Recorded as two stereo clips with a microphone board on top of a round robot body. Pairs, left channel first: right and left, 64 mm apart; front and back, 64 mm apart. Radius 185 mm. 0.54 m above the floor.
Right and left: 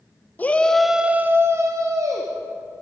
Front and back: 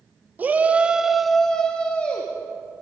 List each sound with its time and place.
0.4 s a shout: 135° right, 1.3 m; by 2.3 s 70° left, 2 m